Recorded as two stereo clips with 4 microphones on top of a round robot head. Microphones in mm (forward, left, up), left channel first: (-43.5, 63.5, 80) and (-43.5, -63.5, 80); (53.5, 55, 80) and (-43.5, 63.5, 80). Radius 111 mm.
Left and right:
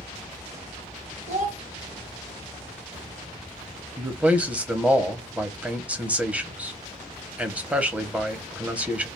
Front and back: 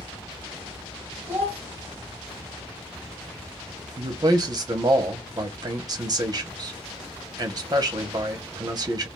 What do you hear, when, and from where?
1.3 s a child speaking: 115° right, 1.8 m
4.0 s a man speaking: 165° right, 0.8 m